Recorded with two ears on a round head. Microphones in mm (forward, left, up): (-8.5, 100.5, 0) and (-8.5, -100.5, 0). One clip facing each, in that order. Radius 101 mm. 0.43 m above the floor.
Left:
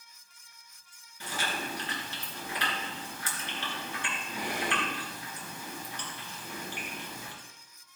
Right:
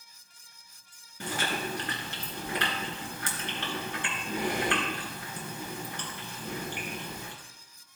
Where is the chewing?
50° right (ahead or behind), 3 m.